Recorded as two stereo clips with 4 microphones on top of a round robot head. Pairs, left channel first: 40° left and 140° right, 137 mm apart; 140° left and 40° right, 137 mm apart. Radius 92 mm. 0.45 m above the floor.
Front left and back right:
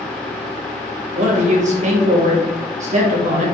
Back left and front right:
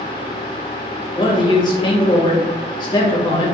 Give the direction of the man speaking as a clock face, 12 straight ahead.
5 o'clock.